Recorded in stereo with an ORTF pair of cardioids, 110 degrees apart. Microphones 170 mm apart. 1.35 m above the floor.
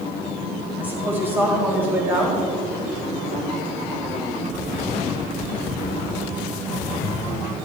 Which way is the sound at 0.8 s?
10° right.